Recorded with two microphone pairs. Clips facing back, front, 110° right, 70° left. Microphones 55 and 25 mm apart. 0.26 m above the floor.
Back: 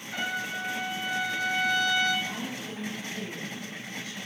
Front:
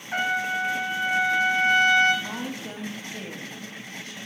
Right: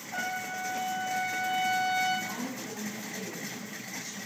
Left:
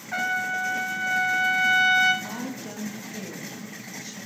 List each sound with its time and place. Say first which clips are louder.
0.1 s a trumpet: front 7 dB, left 8 dB; 45° left, 1.1 m
2.2 s a woman speaking: front 2 dB, left 2 dB; 30° left, 1.4 m